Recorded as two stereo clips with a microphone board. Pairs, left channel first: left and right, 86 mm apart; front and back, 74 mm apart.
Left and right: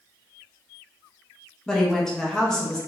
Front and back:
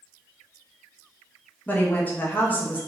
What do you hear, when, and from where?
1.7 s a woman speaking: 15° left, 0.6 m